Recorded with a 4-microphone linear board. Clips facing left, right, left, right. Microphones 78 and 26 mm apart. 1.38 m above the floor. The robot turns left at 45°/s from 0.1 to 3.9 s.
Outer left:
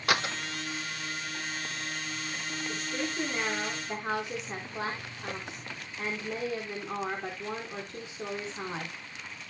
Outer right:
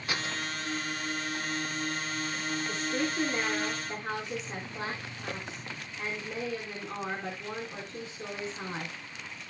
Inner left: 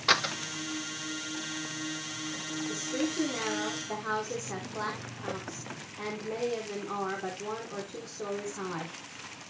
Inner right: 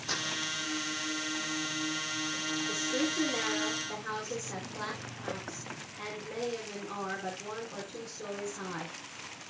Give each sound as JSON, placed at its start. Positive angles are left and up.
{"t": 0.1, "sound": "a door slam", "side_deg": 75, "distance_m": 1.0}
{"t": 2.7, "sound": "a woman speaking", "azimuth_deg": -145, "distance_m": 4.5}